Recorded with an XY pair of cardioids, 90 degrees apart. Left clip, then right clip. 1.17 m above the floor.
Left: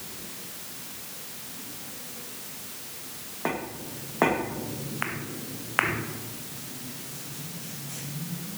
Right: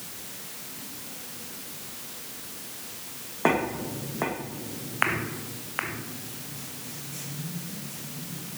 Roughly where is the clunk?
I don't hear a clunk.